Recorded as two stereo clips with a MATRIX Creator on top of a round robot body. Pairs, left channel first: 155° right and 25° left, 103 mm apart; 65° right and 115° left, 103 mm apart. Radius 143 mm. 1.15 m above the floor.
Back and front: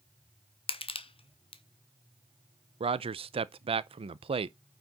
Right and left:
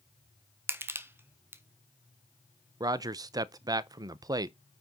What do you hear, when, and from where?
0.7 s crushing: straight behind, 1.3 m
2.8 s a man speaking: 55° left, 0.5 m